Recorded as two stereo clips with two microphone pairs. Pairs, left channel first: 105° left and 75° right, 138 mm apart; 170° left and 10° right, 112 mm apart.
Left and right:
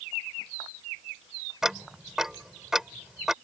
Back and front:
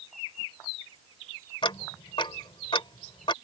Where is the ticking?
160° right.